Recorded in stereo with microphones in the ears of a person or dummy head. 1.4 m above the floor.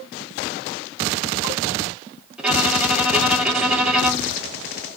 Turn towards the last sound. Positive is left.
turn(degrees=-5)  # may be behind; listen again after turning